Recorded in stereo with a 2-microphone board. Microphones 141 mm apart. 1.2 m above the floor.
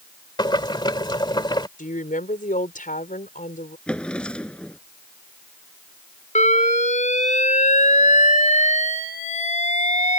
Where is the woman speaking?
75° left (ahead or behind).